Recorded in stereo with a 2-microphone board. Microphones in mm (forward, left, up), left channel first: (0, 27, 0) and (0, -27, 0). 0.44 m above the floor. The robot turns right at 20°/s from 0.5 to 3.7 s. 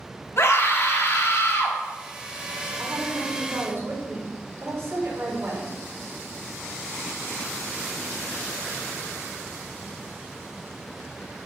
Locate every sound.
0.4 s a scream: 55° left (ahead or behind), 2.5 m; by 1.8 s 60° left (ahead or behind), 2.5 m
2.8 s a woman speaking: 65° right (ahead or behind), 4 m; by 5.7 s 45° right (ahead or behind), 4 m